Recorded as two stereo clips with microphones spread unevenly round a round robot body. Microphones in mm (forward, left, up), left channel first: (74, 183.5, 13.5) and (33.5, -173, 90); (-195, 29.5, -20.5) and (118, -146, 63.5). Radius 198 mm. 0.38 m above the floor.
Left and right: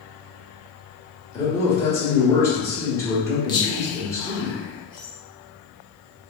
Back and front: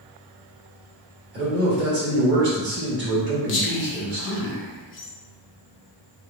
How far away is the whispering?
About 1.0 m.